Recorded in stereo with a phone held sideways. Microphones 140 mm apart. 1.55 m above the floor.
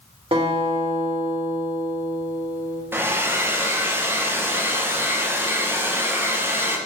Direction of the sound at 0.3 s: 45° right (ahead or behind).